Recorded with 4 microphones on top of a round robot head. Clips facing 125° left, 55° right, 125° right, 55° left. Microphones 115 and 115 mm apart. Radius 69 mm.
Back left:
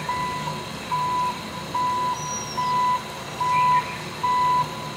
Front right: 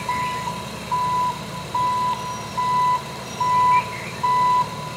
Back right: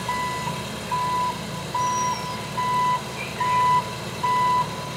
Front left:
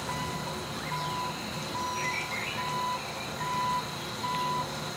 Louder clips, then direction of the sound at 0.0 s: Front right 2 dB, back right 8 dB; 110° right.